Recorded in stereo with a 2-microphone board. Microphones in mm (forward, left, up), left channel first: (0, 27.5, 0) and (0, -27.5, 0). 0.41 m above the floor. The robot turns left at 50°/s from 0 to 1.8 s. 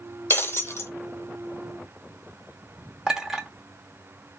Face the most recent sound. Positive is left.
turn(degrees=-15)  # may be behind; listen again after turning